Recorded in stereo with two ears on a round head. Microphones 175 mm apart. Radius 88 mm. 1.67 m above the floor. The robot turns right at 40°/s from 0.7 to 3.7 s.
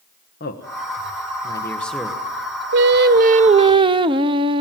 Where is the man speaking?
50° left (ahead or behind), 1.4 m; by 2.2 s 10° right (ahead or behind), 1.4 m.